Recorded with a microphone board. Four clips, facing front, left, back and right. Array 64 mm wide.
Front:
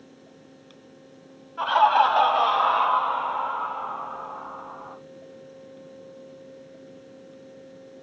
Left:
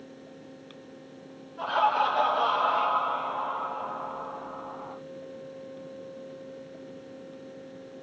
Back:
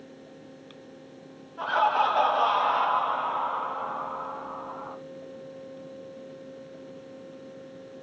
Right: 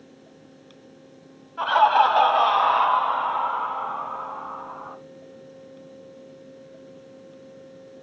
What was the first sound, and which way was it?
Laughter, 55° right.